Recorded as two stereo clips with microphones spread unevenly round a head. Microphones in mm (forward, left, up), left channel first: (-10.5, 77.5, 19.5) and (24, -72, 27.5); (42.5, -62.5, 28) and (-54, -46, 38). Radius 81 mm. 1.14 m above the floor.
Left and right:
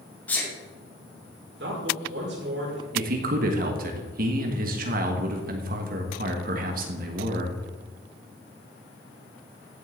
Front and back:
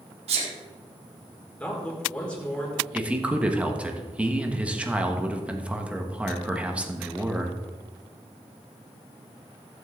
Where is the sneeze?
175° right, 2.5 m.